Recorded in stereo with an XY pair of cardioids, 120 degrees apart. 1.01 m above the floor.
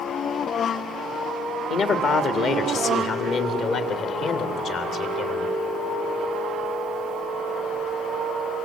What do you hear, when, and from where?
1.7 s a man speaking: 55° left, 1.7 m; by 5.5 s 65° left, 3.5 m